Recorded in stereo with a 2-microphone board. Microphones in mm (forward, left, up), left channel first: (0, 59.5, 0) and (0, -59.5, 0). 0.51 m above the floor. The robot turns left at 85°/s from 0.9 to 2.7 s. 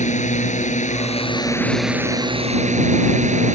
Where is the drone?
75° left; by 3.5 s 75° right.